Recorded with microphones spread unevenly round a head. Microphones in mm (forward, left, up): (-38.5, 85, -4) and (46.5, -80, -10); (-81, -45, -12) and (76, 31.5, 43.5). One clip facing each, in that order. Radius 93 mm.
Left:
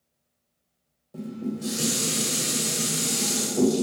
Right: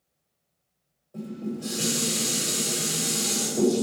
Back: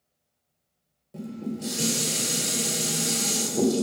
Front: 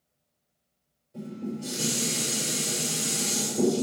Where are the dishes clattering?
Straight behind, 1.0 m.